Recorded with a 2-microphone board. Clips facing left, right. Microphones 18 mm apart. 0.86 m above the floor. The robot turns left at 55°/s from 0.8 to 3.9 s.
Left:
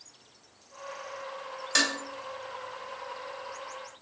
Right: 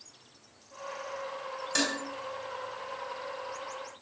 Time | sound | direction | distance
1.8 | dishes clattering | 30° left (ahead or behind) | 2.5 m